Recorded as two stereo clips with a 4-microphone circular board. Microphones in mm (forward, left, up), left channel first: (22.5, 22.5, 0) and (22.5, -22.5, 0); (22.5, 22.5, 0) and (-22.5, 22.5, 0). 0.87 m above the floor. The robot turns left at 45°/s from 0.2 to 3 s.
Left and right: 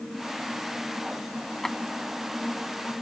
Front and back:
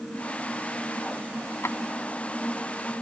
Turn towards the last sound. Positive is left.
turn(degrees=-50)